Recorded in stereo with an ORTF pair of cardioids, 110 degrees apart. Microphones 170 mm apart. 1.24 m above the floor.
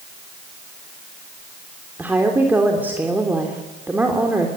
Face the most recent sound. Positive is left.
turn(degrees=-10)